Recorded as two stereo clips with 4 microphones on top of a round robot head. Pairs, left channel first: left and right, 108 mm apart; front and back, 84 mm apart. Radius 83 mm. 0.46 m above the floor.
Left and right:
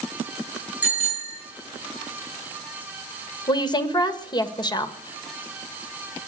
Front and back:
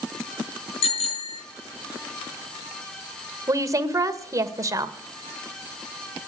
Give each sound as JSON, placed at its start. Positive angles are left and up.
{"t": 0.8, "sound": "a bicycle bell", "azimuth_deg": -10, "distance_m": 5.0}
{"t": 3.5, "sound": "a woman speaking", "azimuth_deg": 135, "distance_m": 1.5}